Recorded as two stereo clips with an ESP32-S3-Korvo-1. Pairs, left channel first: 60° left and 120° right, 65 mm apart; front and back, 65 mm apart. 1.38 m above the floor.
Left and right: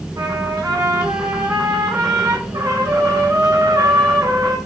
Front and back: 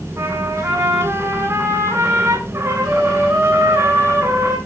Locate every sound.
0.2 s a trumpet: 135° right, 7.5 m